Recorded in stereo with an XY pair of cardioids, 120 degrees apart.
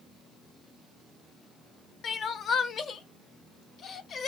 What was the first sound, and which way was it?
Crying, 45° left.